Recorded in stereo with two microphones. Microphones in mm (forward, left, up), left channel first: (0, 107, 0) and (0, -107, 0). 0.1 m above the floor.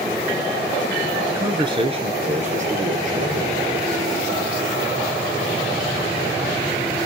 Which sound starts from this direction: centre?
A man speaking, at 1.3 s.